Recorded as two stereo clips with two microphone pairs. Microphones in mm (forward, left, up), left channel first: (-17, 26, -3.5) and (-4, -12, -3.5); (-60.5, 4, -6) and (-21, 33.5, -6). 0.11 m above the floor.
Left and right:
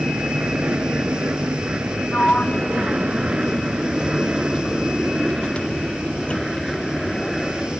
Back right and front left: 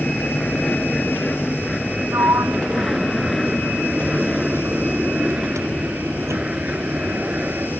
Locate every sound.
0.0 s an aircraft: 80° right; by 7.8 s 30° left
2.1 s a sliding door: 50° left